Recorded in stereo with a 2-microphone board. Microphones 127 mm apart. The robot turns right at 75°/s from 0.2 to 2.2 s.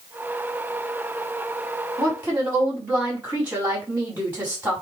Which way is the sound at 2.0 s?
30° right (ahead or behind).